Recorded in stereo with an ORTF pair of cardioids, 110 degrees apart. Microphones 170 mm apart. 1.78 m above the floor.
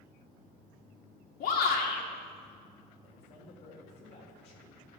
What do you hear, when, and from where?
1.4 s a shout: 60° left, 2.0 m
3.0 s a man speaking: 40° left, 4 m